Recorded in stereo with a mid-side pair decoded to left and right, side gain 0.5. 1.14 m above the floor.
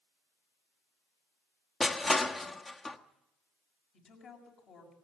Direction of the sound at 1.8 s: 25° left.